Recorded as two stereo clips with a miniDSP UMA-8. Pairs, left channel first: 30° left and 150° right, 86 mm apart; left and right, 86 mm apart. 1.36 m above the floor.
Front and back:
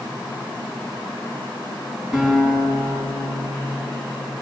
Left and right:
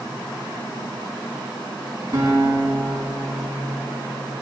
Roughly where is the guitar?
Right.